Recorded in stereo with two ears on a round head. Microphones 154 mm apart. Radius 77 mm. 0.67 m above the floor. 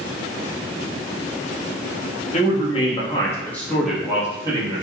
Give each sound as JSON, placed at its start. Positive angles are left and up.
{"t": 2.3, "sound": "a man speaking", "side_deg": 40, "distance_m": 1.5}